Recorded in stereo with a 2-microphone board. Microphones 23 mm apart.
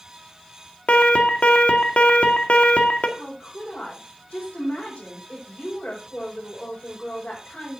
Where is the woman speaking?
90° left, 4.5 m.